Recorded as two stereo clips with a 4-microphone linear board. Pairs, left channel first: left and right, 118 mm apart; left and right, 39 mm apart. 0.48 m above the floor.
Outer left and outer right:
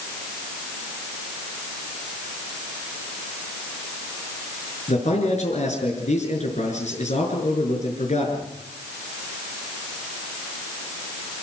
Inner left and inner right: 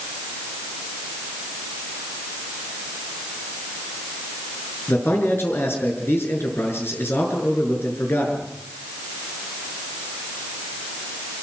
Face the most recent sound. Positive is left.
turn(degrees=75)  # may be behind; listen again after turning